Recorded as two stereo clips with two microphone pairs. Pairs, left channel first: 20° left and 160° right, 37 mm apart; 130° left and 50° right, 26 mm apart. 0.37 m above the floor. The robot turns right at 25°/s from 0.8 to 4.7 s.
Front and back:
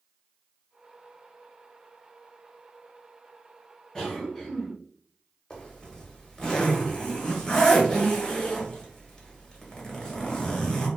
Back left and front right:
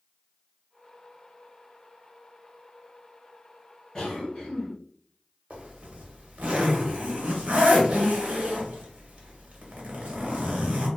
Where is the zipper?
40° right, 0.7 m.